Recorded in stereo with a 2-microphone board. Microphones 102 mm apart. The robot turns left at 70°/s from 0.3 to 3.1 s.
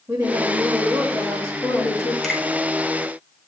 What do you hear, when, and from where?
0.1 s a woman speaking: 20° right (ahead or behind), 1.1 m; by 2.1 s 30° left (ahead or behind), 1.1 m
2.2 s a finger snap: 5° left (ahead or behind), 1.4 m; by 2.4 s 5° right (ahead or behind), 1.4 m